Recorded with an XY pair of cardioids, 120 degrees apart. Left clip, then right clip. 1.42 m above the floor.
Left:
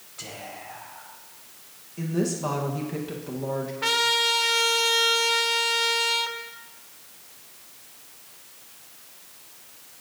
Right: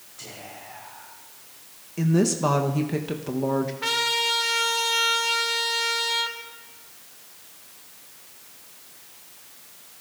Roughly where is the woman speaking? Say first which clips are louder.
Right 5 dB; ahead right.